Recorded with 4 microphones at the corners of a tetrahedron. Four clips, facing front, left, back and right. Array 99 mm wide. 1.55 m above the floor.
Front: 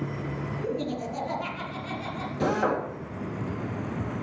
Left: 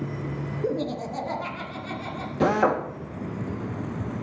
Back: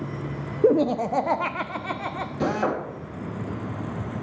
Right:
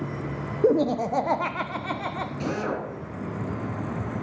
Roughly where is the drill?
Left.